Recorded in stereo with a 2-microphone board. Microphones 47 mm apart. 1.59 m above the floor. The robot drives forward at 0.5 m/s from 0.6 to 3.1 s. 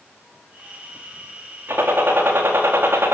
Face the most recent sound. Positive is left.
turn(degrees=-65)  # may be behind; listen again after turning